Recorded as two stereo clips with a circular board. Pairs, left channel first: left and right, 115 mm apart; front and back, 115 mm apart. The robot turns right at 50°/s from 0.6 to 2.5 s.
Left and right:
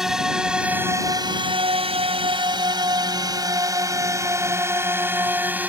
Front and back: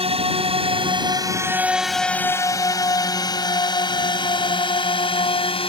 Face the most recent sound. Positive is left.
turn(degrees=-15)